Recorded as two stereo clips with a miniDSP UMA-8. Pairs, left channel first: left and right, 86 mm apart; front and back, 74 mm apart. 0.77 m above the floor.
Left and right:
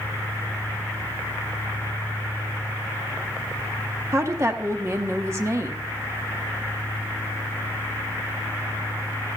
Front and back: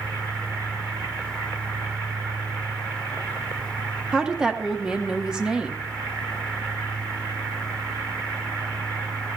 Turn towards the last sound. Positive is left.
turn(degrees=-110)